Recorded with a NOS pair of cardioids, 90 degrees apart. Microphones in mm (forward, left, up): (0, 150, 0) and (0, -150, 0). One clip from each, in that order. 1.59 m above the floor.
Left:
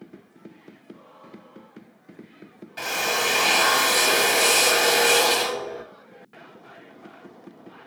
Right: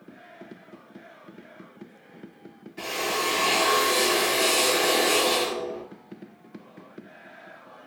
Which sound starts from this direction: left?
A drill, at 2.8 s.